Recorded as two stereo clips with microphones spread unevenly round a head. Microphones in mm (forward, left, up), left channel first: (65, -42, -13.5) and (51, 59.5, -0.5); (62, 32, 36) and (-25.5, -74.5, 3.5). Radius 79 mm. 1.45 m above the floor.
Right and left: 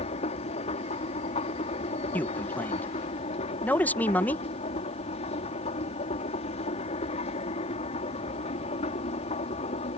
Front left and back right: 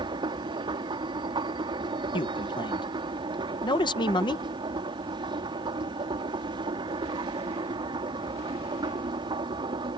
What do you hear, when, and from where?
0.0 s a machine running: 70° right
2.1 s a man speaking: 10° right